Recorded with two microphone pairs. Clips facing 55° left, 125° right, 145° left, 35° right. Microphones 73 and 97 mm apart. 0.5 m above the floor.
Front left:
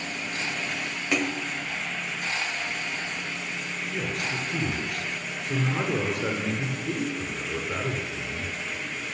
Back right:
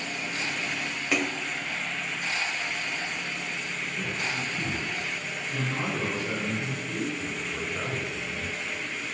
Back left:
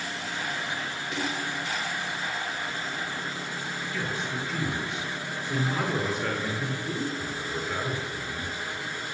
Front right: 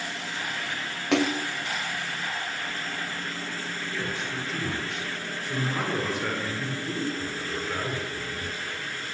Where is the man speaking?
60° left, 9.5 m.